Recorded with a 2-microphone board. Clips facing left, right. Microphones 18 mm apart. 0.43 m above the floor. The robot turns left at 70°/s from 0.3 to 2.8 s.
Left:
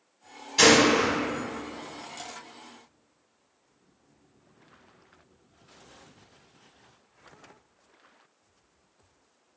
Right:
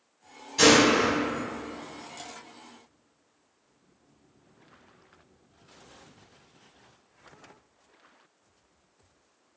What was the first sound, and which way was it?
A gunshot, 35° left.